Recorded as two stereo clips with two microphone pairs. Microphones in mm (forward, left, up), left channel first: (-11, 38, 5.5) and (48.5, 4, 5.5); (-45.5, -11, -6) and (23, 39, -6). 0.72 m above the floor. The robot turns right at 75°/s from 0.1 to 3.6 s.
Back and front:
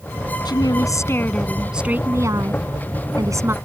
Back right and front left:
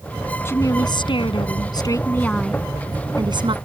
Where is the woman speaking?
155° left; by 3.5 s 25° left.